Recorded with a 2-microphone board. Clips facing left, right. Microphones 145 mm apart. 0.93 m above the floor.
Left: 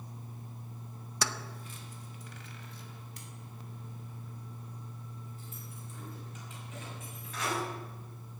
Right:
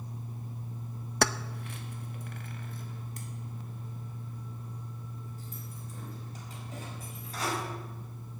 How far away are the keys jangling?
About 0.6 m.